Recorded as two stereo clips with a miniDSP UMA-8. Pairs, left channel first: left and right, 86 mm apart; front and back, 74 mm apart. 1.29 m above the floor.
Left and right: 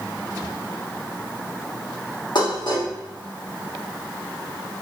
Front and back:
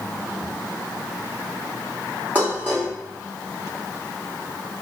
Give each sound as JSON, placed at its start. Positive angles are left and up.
{"t": 2.4, "sound": "dishes clattering", "azimuth_deg": 115, "distance_m": 1.5}